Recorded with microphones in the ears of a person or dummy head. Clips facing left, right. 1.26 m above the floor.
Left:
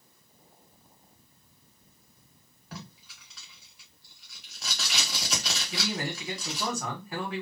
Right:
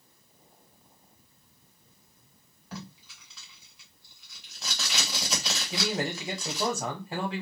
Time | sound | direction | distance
2.7 | tape being pulled | 10° left (ahead or behind) | 1.2 m
5.7 | a man speaking | 15° right (ahead or behind) | 0.9 m